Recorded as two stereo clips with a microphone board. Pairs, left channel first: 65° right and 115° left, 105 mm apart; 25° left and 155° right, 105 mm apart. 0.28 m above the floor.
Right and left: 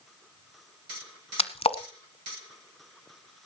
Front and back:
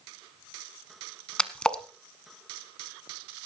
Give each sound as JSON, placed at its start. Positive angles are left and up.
{"t": 1.4, "sound": "a splash", "azimuth_deg": -60, "distance_m": 1.0}